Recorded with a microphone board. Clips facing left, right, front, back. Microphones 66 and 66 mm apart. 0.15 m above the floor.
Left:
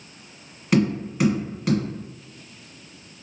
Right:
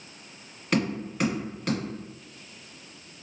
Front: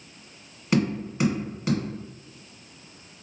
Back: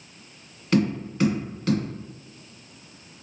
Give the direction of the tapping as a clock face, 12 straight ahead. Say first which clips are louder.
Left 6 dB, back 1 dB; 12 o'clock.